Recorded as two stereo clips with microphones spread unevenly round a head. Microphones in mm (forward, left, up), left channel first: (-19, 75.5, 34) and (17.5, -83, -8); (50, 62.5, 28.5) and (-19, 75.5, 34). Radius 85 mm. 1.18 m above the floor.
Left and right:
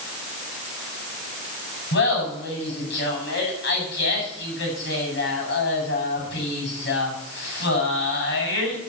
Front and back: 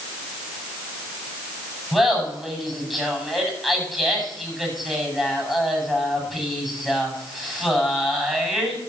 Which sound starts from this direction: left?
Laughter, at 1.9 s.